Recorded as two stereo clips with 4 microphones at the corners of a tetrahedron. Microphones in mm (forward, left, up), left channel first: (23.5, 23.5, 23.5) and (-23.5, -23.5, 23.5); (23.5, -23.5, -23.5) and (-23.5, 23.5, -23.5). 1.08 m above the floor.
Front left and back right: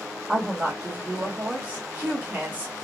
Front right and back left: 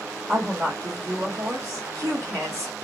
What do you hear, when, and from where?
0.3 s a woman speaking: 160° left, 1.6 m